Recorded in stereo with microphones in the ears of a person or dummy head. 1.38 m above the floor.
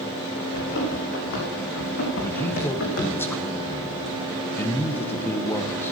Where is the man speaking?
10° left (ahead or behind), 1.0 m.